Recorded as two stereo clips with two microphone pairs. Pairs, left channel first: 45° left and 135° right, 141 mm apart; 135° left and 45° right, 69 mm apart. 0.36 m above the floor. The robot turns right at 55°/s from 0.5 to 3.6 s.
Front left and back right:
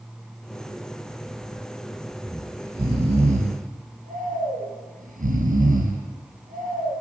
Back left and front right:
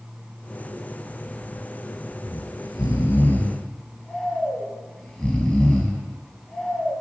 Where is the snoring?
130° left, 5 m; by 6.9 s 155° right, 5 m.